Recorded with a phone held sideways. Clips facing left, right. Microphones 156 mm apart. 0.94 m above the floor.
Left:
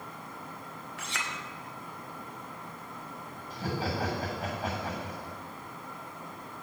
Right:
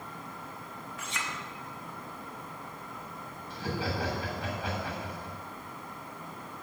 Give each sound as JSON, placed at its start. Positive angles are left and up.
{"t": 1.0, "sound": "a clink", "side_deg": 75, "distance_m": 1.6}
{"t": 3.5, "sound": "laughter", "side_deg": 40, "distance_m": 7.0}